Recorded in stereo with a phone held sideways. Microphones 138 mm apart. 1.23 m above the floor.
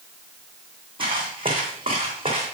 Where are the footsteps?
35° right (ahead or behind), 3 m; by 2.5 s 40° right (ahead or behind), 3.5 m.